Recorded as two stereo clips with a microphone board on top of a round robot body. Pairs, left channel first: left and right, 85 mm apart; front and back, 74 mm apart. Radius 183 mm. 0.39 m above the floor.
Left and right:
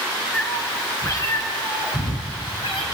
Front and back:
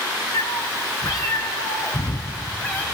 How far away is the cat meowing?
About 2.5 m.